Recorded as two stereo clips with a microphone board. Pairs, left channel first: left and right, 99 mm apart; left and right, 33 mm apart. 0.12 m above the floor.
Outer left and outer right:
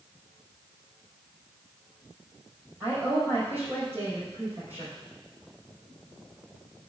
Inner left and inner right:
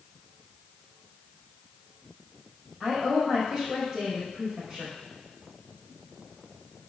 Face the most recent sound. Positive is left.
turn(degrees=-20)  # may be behind; listen again after turning